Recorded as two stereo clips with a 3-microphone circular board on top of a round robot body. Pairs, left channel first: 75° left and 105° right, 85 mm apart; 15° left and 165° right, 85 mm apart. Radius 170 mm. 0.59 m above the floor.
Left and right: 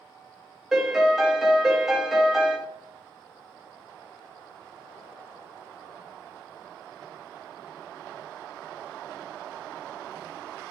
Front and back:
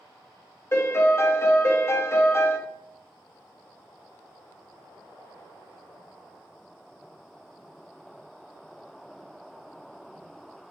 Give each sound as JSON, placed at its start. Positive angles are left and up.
{"t": 0.7, "sound": "a piano", "azimuth_deg": -20, "distance_m": 1.1}